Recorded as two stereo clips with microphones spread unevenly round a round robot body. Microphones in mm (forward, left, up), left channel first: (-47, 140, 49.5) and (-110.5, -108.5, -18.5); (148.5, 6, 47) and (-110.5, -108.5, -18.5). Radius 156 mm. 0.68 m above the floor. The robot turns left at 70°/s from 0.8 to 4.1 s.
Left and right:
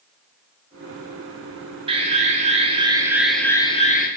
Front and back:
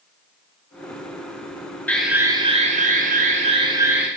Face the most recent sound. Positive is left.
turn(degrees=130)